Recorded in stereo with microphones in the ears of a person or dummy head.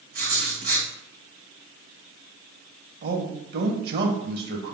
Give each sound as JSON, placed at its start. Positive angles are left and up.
{"t": 0.1, "sound": "writing", "side_deg": -45, "distance_m": 2.0}
{"t": 3.0, "sound": "a man speaking", "side_deg": -60, "distance_m": 2.0}